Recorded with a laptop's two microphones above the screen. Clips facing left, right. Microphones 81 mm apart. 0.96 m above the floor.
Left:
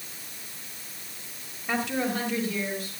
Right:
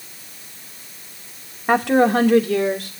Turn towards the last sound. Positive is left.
turn(degrees=-85)